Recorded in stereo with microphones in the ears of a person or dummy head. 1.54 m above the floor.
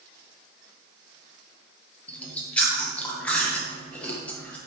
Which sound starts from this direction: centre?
Chewing, at 2.1 s.